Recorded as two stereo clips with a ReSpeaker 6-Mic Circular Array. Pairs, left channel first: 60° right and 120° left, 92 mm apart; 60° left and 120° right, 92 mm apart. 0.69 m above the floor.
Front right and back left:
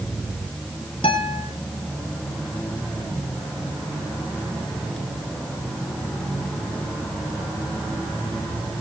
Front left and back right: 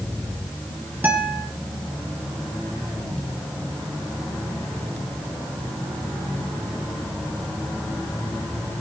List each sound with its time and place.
1.0 s a guitar: 50° right, 4 m